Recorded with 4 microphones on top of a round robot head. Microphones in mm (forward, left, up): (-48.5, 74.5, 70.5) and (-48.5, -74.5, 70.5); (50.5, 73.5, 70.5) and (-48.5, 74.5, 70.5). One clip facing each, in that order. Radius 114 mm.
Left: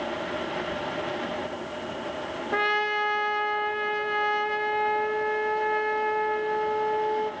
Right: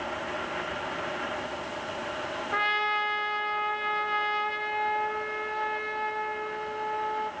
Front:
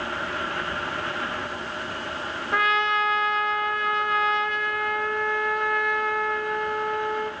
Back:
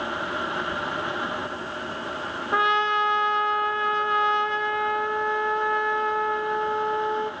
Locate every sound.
2.5 s a trumpet: 120° left, 1.2 m